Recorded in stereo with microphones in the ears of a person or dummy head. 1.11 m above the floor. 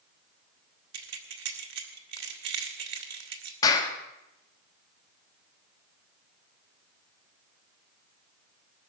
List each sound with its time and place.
0.9 s keys jangling: 70° right (ahead or behind), 1.7 m
3.6 s a clap: 25° left (ahead or behind), 2 m